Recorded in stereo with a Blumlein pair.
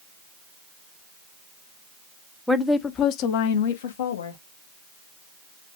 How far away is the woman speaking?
About 0.8 m.